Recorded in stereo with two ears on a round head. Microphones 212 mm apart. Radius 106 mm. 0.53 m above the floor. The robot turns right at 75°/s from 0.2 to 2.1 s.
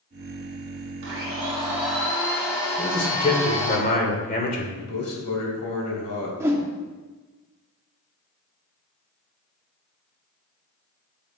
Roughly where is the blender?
Ahead right.